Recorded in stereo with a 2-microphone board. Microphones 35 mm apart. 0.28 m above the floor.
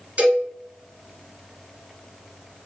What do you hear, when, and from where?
0.2 s a cowbell: 45° right (ahead or behind), 1.6 m